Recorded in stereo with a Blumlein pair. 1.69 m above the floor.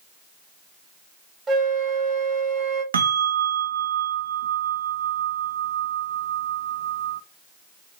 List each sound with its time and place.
1.5 s a flute: 20° right, 1.7 m
2.9 s a bell: 70° right, 0.7 m